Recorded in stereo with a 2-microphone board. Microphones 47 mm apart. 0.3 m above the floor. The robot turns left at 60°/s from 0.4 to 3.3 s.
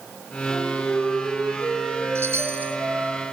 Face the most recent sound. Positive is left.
turn(degrees=-165)